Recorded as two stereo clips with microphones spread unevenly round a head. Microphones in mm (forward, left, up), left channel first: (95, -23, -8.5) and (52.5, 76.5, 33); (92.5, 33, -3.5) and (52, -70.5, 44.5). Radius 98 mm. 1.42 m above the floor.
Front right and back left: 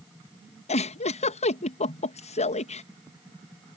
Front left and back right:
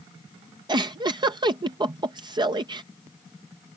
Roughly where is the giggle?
Ahead right.